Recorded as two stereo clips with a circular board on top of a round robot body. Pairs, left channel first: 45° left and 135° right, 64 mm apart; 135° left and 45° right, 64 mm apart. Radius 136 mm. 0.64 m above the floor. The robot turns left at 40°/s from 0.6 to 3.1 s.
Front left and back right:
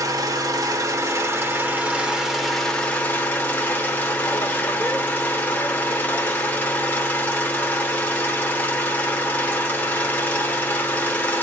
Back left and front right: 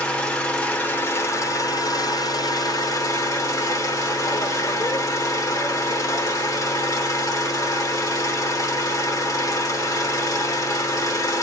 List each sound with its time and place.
0.0 s an engine running: 150° right, 1.4 m; by 11.4 s 110° left, 1.4 m